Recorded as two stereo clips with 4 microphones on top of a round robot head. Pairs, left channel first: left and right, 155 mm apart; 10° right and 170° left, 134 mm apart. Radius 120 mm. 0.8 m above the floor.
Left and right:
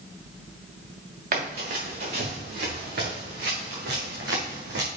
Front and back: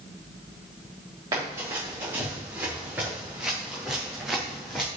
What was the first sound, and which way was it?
Running footsteps, 115° right.